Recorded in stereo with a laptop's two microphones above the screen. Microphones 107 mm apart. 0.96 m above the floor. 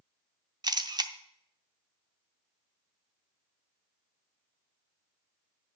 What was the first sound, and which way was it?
A camera shutter, 40° right (ahead or behind).